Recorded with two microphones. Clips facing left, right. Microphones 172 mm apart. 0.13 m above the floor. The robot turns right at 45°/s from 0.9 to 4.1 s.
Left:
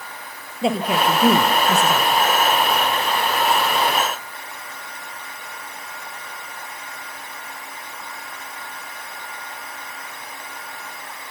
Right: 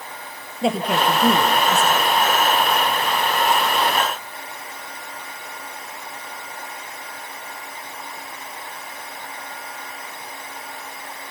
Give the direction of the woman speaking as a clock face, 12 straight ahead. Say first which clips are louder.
Even; 12 o'clock.